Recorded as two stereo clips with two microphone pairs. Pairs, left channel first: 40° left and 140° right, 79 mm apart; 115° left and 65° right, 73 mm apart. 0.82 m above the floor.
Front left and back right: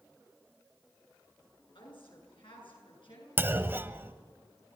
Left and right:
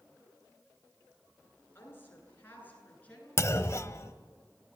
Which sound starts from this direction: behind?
A clunk, at 3.4 s.